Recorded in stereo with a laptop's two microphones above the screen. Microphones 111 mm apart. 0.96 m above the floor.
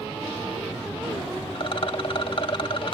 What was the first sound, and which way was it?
A rattle, 55° left (ahead or behind).